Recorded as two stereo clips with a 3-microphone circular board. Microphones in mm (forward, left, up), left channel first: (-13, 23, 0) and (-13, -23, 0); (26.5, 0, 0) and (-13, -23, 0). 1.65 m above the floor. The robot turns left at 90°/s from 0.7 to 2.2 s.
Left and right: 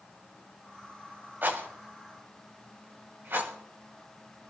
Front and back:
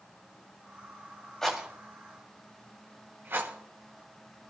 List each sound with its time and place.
1.4 s a rattle: 50° right, 3 m; by 3.5 s 120° right, 3 m